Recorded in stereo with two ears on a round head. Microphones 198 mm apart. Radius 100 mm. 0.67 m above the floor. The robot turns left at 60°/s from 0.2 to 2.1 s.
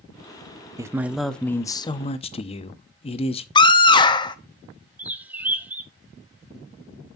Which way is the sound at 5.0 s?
10° right (ahead or behind).